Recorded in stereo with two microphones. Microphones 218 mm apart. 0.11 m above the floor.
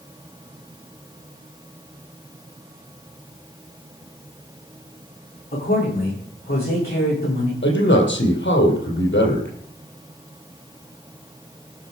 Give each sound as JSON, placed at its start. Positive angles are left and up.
{"t": 5.5, "sound": "a man speaking", "side_deg": 45, "distance_m": 9.5}
{"t": 7.6, "sound": "a man speaking", "side_deg": 60, "distance_m": 3.0}